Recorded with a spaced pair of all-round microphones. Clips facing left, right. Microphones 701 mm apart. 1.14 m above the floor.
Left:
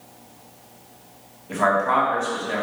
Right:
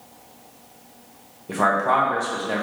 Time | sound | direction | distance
1.5 | a man speaking | 65° right (ahead or behind) | 1.0 m